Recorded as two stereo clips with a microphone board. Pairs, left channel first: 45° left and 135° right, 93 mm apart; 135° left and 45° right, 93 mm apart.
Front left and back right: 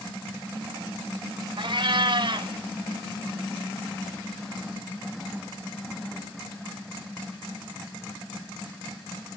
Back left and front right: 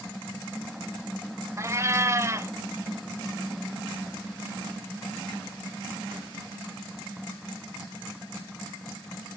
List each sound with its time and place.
1.6 s a cat meowing: 100° right, 0.7 m